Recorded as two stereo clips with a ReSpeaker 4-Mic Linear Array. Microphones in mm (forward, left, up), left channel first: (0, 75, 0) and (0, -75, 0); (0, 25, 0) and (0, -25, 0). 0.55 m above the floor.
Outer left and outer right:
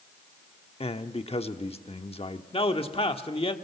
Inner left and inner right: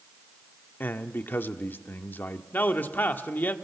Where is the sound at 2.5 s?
45° left (ahead or behind), 1.2 m.